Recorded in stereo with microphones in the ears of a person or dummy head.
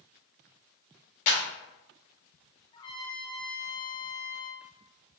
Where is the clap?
40° left (ahead or behind), 2 m.